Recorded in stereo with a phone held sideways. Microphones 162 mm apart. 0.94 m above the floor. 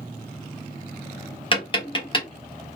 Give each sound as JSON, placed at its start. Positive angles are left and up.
{"t": 1.5, "sound": "tapping", "side_deg": 30, "distance_m": 1.5}